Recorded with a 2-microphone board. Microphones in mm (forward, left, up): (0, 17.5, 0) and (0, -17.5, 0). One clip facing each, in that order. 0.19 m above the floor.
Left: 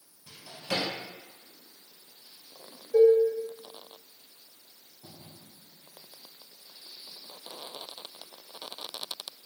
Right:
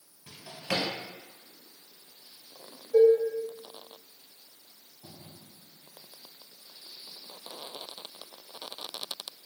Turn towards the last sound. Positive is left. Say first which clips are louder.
# even
turn(degrees=-10)  # may be behind; listen again after turning